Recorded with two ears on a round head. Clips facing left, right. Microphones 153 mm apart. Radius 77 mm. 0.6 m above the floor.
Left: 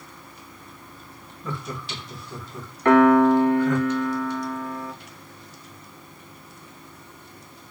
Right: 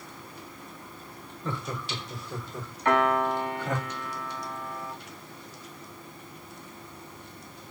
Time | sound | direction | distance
1.4 | laughter | 10° left (ahead or behind) | 2 m
2.9 | a piano | 50° left (ahead or behind) | 1.0 m